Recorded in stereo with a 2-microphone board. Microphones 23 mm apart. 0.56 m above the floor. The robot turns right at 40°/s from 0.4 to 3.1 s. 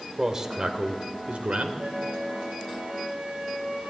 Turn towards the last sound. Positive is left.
turn(degrees=-60)